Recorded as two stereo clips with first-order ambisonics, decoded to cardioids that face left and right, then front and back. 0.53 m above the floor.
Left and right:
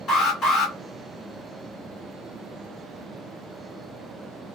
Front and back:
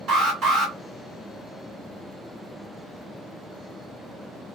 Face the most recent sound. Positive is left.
turn(degrees=140)